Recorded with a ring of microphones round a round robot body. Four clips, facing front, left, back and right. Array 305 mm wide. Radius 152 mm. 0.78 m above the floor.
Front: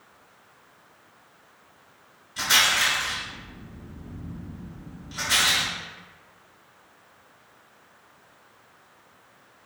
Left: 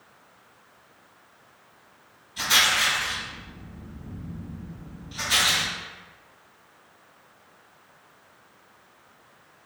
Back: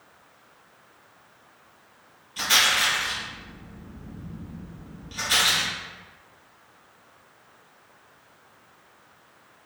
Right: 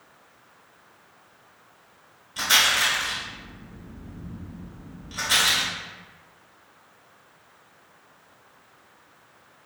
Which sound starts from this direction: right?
A rattle, at 2.4 s.